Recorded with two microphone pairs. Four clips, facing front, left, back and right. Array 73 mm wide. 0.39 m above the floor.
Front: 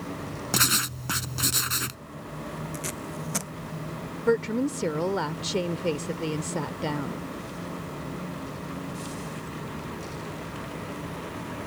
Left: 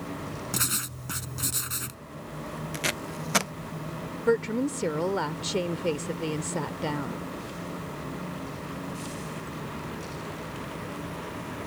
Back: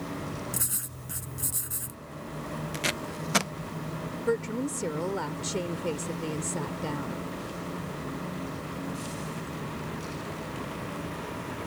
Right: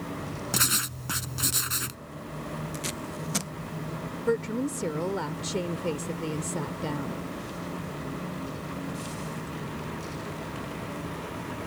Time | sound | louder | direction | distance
0.5 | writing | right 3 dB, front 13 dB | 20° right | ?
2.7 | tape being pulled | left 3 dB, back 2 dB | 125° left | ?
4.3 | a woman speaking | left 3 dB, front 5 dB | 50° left | ?